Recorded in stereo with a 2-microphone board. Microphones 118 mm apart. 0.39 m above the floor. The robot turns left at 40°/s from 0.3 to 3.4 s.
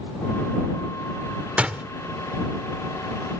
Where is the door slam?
10° right (ahead or behind).